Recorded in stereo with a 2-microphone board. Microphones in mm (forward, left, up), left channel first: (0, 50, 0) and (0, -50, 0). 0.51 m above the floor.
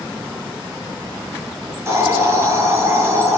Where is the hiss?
25° right (ahead or behind), 8 m.